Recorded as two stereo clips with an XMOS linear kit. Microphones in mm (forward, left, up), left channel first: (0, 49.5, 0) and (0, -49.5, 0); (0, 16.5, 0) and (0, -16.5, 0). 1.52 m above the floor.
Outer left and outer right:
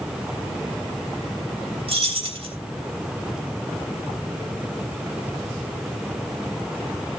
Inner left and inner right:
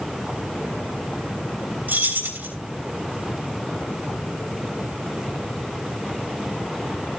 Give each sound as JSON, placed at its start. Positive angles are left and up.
{"t": 1.9, "sound": "keys jangling", "side_deg": -80, "distance_m": 3.5}